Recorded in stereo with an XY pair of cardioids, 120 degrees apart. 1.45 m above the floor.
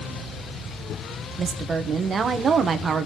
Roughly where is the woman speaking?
Ahead right.